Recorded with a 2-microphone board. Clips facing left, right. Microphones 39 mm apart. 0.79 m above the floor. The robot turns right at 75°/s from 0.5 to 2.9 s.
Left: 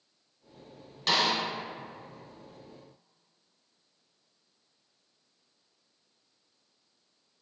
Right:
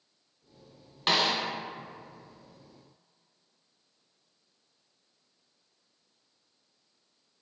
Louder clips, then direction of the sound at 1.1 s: Even; 30° right (ahead or behind).